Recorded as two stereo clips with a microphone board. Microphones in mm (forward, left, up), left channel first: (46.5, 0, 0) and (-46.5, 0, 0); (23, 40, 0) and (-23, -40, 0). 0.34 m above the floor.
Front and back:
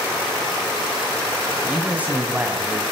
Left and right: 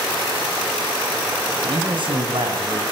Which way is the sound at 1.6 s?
105° right.